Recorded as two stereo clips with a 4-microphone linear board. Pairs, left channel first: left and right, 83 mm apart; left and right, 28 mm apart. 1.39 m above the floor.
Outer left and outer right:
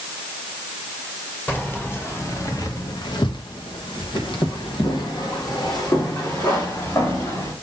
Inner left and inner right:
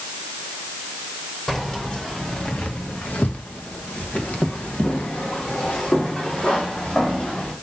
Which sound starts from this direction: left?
Keys jangling, at 1.5 s.